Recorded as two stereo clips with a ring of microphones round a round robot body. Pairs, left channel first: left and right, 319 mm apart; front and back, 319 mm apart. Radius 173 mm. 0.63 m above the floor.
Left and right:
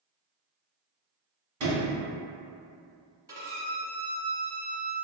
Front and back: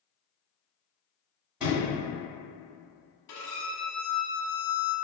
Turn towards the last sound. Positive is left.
turn(degrees=-15)